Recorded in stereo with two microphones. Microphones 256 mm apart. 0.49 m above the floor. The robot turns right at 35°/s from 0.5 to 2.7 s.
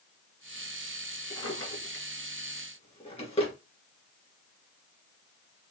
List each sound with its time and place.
1.3 s a drawer: 70° left (ahead or behind), 2.5 m; by 3.5 s 20° left (ahead or behind), 2.5 m